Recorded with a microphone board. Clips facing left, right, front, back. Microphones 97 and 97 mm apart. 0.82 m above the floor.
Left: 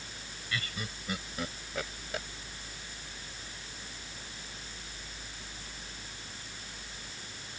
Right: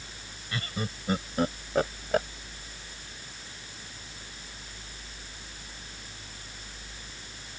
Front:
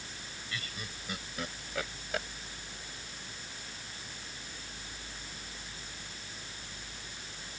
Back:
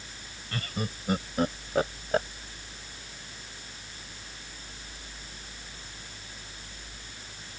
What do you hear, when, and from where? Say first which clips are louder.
0.5 s laughter: right 5 dB, back 10 dB; 145° right; by 2.3 s 130° right